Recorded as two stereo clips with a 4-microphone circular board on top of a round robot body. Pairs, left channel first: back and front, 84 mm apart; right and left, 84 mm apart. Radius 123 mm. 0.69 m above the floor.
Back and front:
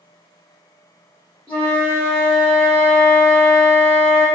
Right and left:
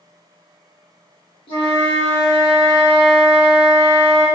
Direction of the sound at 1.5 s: 100° right.